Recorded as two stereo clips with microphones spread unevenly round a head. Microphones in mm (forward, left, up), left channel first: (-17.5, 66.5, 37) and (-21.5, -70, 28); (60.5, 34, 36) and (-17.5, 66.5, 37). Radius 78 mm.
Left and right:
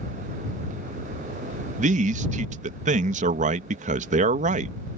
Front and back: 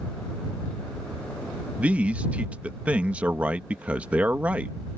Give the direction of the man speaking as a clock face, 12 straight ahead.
4 o'clock.